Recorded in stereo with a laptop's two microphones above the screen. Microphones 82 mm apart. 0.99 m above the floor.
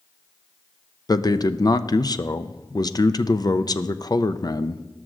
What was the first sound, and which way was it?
A man speaking, 50° left (ahead or behind).